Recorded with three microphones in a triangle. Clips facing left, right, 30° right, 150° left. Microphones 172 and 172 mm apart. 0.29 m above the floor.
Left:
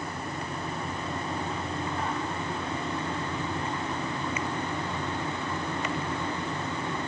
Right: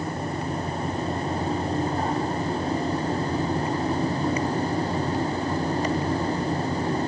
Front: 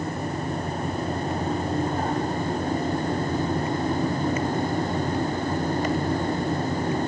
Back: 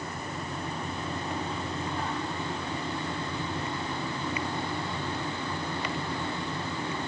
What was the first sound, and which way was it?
Only background noise.